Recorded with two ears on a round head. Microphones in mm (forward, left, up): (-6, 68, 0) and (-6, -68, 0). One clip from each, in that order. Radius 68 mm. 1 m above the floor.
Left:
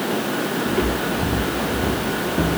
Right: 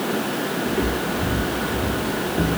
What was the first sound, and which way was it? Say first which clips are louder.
Footsteps: left 2 dB; 70° left (ahead or behind).